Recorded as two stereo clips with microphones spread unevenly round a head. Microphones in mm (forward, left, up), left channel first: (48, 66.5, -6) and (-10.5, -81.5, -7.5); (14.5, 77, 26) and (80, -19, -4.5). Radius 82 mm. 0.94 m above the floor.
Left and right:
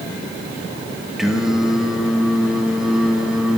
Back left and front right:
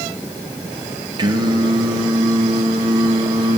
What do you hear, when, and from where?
1.2 s singing: 25° right, 1.3 m